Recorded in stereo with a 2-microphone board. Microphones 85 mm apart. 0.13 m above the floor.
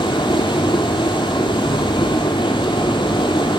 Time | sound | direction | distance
0.0 | running water | 70° left (ahead or behind) | 0.8 m